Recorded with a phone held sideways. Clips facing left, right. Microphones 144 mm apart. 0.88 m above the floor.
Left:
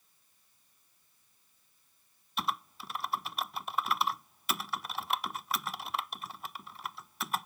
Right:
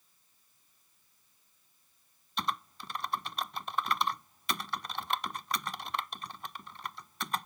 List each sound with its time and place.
2.4 s typing on a keyboard: 5° left (ahead or behind)